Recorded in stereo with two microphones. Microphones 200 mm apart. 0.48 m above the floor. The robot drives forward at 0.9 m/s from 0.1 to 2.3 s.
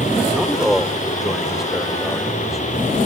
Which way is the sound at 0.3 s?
5° right (ahead or behind).